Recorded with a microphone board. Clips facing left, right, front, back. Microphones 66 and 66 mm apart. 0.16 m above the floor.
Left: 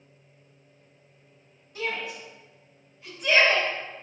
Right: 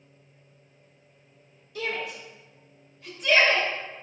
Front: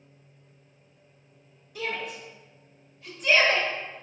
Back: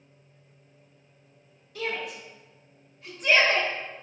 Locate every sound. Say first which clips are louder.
1.8 s a shout: even, back 1 dB; 70° left, 1.0 m; by 3.7 s 150° left, 1.4 m